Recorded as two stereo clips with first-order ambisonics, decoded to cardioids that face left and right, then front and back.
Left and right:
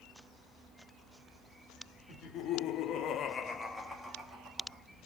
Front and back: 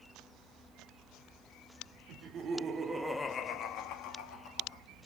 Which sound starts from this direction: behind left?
Laughter, at 2.1 s.